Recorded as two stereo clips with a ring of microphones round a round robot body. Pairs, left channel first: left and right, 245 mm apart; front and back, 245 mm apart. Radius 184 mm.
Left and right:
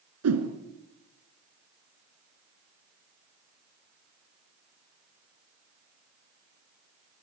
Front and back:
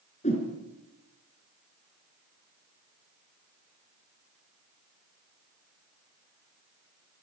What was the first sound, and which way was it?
A whoosh, 70° right.